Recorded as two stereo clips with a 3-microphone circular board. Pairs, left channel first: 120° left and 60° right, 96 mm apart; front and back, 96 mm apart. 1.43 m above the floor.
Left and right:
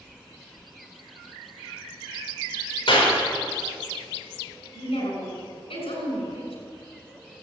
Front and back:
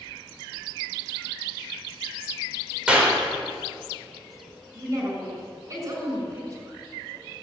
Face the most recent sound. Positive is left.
turn(degrees=125)